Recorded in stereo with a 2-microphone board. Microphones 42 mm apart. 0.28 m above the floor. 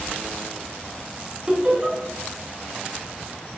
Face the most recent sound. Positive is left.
turn(degrees=-25)  # may be behind; listen again after turning